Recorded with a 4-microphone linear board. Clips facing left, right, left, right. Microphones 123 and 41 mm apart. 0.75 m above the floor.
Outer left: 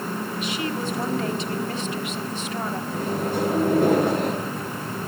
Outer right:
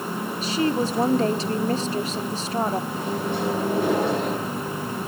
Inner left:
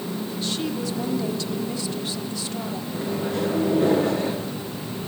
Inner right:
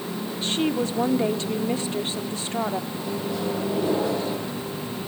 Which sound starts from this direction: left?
A microwave, at 2.9 s.